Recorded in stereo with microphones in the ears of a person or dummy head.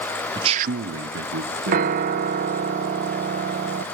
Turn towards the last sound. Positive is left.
turn(degrees=-55)  # may be behind; listen again after turning